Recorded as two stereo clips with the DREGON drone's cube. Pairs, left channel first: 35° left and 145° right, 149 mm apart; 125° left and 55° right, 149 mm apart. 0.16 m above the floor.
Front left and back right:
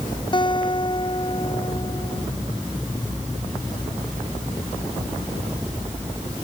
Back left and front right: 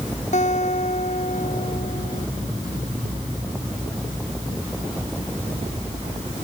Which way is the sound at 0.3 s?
90° left.